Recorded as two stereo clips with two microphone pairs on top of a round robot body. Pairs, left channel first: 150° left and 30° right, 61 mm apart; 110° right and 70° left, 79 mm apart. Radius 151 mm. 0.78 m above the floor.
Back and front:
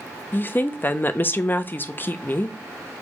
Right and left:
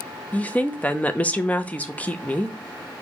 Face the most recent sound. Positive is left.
turn(degrees=180)